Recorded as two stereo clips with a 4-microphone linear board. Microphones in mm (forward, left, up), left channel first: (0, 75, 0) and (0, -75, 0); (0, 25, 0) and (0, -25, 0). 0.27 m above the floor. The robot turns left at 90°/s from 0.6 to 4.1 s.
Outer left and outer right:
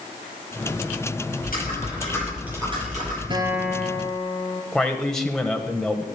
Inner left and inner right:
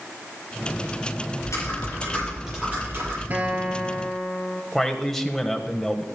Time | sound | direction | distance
1.4 | typing on a keyboard | 85° left | 8.5 m
3.3 | a guitar | 145° right | 1.9 m
4.7 | a man speaking | 5° left (ahead or behind) | 1.0 m